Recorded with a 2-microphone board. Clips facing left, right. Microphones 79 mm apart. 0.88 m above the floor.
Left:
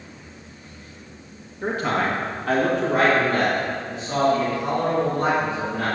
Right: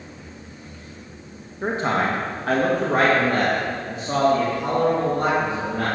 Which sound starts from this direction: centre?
A man speaking, at 1.6 s.